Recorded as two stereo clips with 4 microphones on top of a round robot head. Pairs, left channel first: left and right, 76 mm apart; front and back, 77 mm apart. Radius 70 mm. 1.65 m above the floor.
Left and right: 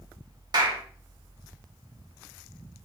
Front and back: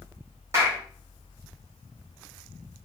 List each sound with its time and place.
0.5 s a clap: 120° right, 2 m